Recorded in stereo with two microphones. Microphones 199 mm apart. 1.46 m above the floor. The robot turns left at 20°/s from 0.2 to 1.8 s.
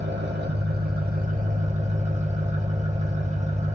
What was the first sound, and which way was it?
An engine running, 105° right.